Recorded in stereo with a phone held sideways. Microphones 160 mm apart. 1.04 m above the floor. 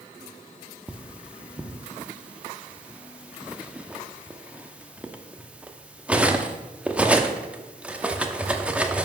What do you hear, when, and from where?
0.9 s cutlery clinking: 10° right (ahead or behind), 0.8 m